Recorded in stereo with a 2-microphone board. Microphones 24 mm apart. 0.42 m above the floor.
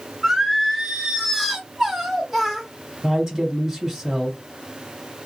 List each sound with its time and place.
0.2 s singing: 10° right (ahead or behind), 1.6 m
3.0 s a man speaking: 20° right (ahead or behind), 1.8 m